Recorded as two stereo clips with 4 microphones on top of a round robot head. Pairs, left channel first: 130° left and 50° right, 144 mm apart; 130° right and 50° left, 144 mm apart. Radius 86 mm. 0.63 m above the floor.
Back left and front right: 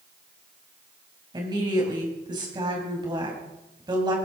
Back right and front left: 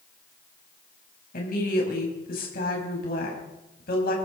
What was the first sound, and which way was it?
A woman speaking, 110° right.